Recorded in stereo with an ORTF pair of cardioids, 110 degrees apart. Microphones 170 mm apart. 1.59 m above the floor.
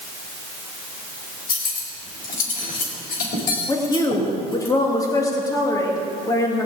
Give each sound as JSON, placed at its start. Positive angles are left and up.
{"t": 1.5, "sound": "cutlery clinking", "azimuth_deg": 55, "distance_m": 4.0}
{"t": 3.7, "sound": "a woman speaking", "azimuth_deg": 20, "distance_m": 2.5}